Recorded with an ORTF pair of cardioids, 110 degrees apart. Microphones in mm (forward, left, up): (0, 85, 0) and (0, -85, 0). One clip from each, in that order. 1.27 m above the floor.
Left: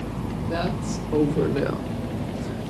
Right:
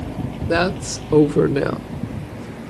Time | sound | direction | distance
0.5 | a woman speaking | 70° right | 1.2 m